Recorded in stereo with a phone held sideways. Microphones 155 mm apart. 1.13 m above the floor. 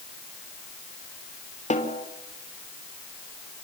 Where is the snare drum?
50° left (ahead or behind), 3 m.